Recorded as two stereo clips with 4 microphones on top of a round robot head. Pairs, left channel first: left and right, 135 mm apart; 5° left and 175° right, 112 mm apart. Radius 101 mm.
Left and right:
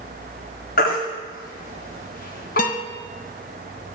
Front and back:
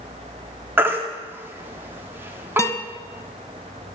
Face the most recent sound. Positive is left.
turn(degrees=70)